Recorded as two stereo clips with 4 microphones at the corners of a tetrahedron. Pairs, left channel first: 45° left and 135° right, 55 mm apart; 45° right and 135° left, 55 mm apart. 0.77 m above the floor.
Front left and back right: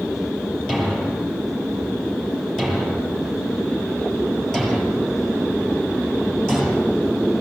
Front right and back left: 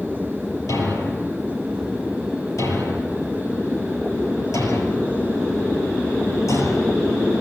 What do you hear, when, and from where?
0.7 s a thud: 40° right, 7 m